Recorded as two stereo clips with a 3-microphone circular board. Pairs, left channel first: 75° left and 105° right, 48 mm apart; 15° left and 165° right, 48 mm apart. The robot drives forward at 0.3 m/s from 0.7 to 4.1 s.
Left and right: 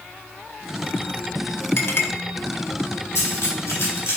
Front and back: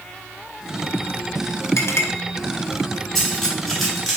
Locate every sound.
1.8 s a clink: 35° left, 0.6 m; by 2.1 s 40° left, 0.5 m
3.1 s cutlery clinking: 100° left, 1.5 m; by 4.2 s 110° left, 1.6 m